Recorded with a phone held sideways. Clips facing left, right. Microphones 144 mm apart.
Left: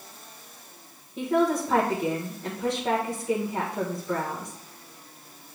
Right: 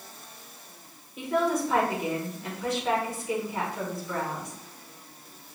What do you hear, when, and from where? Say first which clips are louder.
1.2 s a woman speaking: left 3 dB; 30° left (ahead or behind), 1.2 m